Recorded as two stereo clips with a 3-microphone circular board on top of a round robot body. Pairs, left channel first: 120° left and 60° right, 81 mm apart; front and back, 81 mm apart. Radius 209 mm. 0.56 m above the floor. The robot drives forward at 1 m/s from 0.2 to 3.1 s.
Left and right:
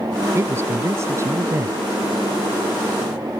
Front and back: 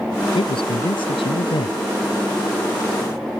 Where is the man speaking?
Straight ahead.